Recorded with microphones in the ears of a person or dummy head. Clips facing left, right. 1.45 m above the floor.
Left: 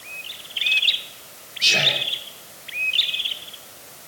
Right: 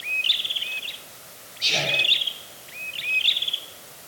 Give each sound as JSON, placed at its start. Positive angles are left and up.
{"t": 1.6, "sound": "whispering", "side_deg": 15, "distance_m": 9.0}